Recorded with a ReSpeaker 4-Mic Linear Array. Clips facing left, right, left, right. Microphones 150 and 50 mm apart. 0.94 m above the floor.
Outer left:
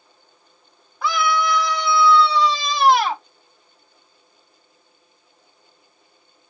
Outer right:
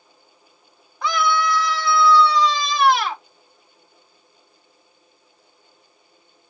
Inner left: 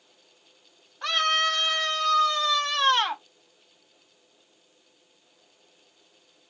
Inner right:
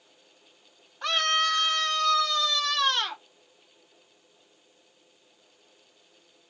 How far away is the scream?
About 2.5 m.